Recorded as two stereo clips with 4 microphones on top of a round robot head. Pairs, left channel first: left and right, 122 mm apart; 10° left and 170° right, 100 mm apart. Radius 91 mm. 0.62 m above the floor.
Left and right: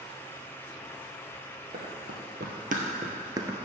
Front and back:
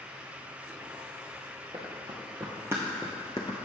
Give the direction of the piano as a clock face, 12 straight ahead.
I don't hear a piano.